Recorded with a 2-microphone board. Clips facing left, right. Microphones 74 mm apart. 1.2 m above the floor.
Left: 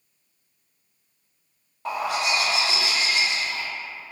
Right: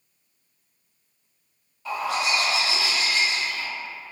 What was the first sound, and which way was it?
A bird, 55° left (ahead or behind).